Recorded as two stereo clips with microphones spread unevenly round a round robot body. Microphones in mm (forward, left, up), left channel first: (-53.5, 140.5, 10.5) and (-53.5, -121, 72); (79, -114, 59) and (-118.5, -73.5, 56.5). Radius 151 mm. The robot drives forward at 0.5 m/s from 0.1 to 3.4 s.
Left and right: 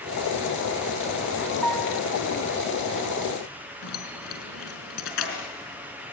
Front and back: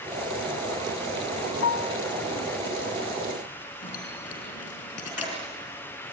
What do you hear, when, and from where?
1.6 s a piano: straight ahead, 1.0 m; by 2.0 s 5° left, 0.8 m
3.8 s keys jangling: 50° left, 4.5 m